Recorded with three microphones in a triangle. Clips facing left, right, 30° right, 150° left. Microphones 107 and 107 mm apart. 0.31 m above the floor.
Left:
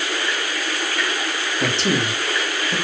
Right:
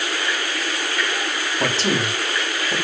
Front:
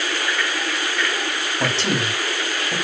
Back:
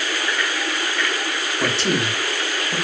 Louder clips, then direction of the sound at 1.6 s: Left 1 dB, back 1 dB; 80° right.